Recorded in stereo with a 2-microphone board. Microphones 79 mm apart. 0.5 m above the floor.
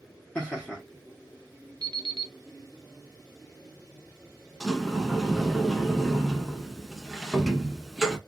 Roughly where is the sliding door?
Centre.